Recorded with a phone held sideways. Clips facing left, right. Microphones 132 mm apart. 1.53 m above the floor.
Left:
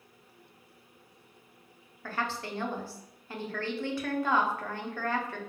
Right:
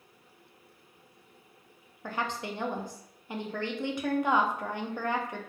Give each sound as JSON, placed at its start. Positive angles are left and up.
{"t": 2.0, "sound": "a woman speaking", "side_deg": -20, "distance_m": 0.5}